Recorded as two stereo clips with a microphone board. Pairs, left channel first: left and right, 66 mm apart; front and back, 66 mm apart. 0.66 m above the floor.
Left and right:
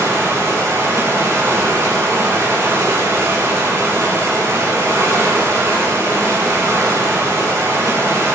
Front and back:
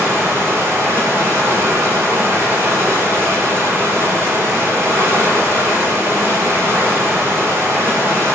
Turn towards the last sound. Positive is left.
turn(degrees=-135)